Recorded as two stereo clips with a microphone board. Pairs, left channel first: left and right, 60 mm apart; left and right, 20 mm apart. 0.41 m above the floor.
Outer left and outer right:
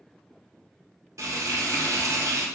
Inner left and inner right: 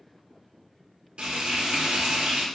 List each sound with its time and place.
1.2 s frying: 65° right (ahead or behind), 0.9 m